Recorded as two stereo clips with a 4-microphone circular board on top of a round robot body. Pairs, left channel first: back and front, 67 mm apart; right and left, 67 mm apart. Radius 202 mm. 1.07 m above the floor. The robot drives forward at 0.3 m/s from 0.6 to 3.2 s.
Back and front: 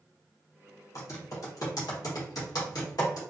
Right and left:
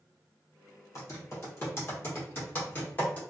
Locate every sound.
0.9 s typing on a keyboard: 135° right, 0.9 m; by 3.2 s 155° right, 1.5 m